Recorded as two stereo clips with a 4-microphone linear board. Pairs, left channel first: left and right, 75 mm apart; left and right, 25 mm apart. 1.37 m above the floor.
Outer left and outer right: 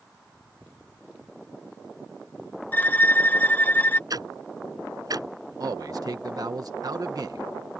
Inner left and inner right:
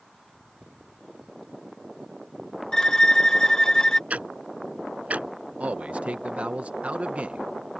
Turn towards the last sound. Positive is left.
turn(degrees=-60)  # may be behind; listen again after turning